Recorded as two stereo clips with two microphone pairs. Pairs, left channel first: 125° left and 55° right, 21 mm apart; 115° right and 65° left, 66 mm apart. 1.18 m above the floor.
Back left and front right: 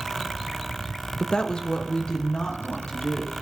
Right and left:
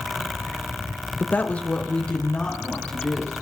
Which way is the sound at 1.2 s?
Straight behind.